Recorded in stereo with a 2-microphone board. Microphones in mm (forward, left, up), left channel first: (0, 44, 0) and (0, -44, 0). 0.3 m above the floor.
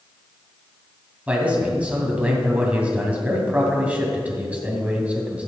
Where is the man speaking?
15° right (ahead or behind), 2.5 m.